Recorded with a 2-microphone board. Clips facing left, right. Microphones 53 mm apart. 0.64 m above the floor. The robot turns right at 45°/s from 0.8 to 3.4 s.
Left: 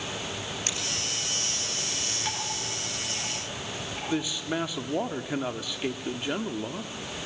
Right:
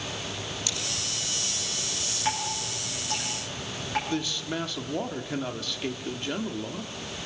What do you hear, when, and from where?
0.7 s scissors: 45° left (ahead or behind), 6.5 m
2.2 s dripping: 15° right (ahead or behind), 4.5 m; by 4.0 s 65° right (ahead or behind), 4.5 m
4.1 s a man speaking: 15° left (ahead or behind), 1.1 m